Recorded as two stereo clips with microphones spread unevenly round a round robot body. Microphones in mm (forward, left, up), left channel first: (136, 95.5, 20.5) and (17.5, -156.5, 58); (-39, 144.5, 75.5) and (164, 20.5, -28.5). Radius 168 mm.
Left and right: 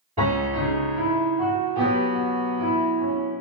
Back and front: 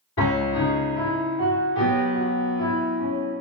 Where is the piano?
175° left, 1.5 m.